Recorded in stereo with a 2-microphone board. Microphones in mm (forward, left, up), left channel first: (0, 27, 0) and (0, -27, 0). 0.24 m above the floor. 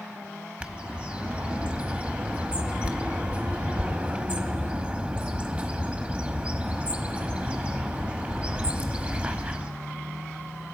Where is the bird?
20° right (ahead or behind), 0.9 m.